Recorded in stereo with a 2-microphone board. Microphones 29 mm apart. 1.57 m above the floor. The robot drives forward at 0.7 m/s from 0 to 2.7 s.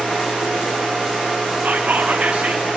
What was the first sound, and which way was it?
Whispering, 60° right (ahead or behind).